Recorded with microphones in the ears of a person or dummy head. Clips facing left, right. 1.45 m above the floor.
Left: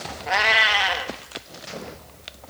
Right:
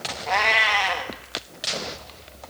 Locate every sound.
0.3 s a cat meowing: 5° left (ahead or behind), 1.2 m